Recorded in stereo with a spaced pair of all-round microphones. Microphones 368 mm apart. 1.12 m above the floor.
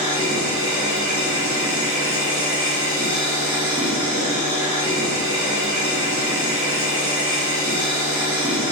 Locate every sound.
0.0 s a machine running: 35° right (ahead or behind), 2 m